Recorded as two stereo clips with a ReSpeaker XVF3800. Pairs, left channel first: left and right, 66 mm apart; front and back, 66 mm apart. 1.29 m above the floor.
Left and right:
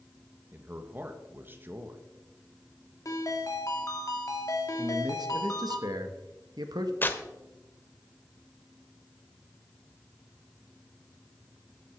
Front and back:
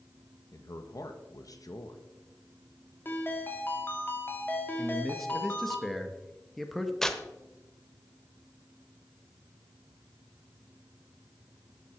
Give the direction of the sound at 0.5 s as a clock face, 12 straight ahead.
1 o'clock.